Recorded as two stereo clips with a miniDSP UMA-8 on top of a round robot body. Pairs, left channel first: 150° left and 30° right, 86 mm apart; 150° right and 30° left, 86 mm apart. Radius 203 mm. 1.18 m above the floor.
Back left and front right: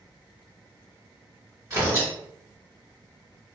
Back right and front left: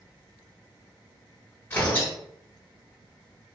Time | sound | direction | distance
1.7 | tearing paper | 85° right | 1.9 m